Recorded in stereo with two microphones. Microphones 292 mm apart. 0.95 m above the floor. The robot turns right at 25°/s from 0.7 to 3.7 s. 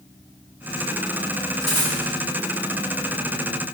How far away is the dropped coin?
About 0.8 m.